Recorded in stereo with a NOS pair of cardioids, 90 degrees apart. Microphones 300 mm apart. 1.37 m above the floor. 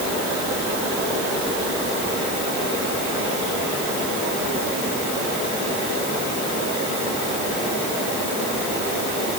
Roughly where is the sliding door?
I don't hear a sliding door.